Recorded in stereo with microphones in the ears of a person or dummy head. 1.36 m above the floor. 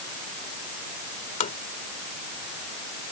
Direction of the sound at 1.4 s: 45° left (ahead or behind).